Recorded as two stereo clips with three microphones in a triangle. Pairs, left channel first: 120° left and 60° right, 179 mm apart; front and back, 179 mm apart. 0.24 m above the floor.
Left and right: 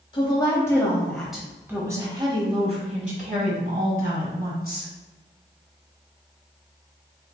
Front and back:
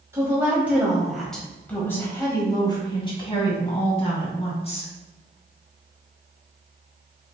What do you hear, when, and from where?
0.1 s a woman speaking: 125° left, 1.4 m; by 4.9 s 50° right, 2.5 m